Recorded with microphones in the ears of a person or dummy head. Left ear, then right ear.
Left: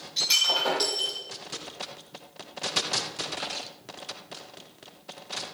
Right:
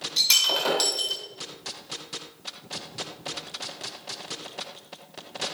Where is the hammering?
No hammering in this recording.